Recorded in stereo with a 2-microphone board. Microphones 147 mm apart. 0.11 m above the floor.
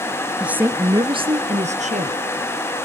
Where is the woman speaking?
5° right (ahead or behind), 1.5 m; by 2.2 s 60° right (ahead or behind), 2.5 m.